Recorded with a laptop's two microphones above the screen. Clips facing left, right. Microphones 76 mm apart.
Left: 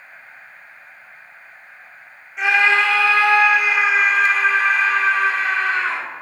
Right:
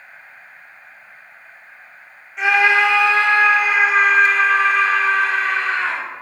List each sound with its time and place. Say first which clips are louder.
2.4 s a scream: right 1 dB; centre (ahead or behind), 1.0 m; by 6.0 s 70° right (ahead or behind), 2 m